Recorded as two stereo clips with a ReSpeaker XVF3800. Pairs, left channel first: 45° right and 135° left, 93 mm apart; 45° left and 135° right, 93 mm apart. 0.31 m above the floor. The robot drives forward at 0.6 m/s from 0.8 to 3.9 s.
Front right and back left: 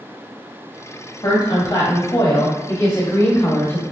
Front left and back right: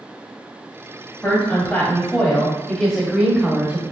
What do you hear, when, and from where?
1.2 s a woman speaking: 20° right, 2 m; by 3.8 s 85° right, 1.3 m